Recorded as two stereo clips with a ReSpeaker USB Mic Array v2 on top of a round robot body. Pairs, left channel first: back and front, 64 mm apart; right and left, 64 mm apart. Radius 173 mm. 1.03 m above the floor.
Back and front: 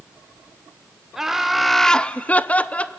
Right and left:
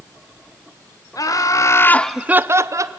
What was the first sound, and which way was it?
Laughter, 85° right.